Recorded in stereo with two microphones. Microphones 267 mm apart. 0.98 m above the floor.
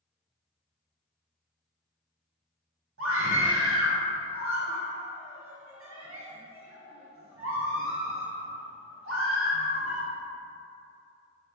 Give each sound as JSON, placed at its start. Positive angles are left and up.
{"t": 3.0, "sound": "a scream", "side_deg": -55, "distance_m": 0.6}